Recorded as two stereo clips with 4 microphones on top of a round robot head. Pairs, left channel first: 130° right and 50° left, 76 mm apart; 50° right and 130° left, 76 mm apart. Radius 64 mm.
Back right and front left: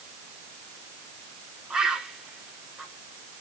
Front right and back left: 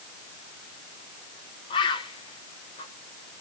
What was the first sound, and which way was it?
A bird, 30° right.